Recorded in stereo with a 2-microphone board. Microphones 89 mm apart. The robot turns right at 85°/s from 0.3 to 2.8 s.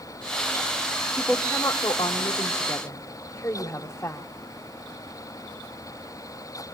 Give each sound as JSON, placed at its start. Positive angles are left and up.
{"t": 1.2, "sound": "a woman speaking", "azimuth_deg": -5, "distance_m": 1.8}